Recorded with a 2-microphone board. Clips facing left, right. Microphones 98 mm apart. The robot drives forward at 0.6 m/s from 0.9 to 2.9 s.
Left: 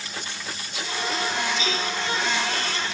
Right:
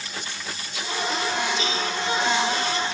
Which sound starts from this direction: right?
A cowbell, at 1.6 s.